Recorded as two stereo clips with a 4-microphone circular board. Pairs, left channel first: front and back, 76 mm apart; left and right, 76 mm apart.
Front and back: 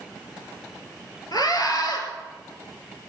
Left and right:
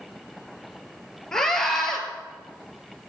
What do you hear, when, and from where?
1.3 s a scream: 5° left, 3 m